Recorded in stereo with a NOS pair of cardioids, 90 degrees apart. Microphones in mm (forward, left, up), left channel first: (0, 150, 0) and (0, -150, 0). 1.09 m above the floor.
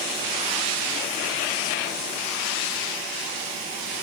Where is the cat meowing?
No cat meowing in this recording.